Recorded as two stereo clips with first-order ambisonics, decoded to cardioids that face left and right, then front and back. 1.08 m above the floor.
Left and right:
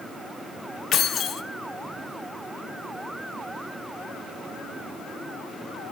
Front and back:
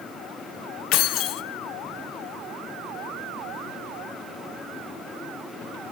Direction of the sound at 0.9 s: 35° left.